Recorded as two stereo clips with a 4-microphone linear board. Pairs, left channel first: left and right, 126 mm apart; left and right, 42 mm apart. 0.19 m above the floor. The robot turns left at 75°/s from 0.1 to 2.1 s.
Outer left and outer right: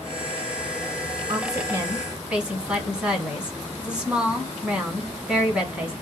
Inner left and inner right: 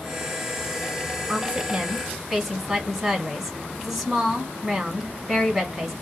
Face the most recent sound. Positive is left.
turn(degrees=-170)